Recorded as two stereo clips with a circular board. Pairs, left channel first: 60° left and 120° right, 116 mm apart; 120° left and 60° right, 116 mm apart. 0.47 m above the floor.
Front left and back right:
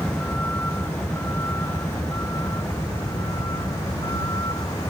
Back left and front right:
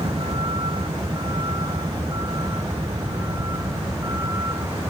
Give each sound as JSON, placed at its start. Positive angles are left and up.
{"t": 0.0, "sound": "a vehicle", "azimuth_deg": -15}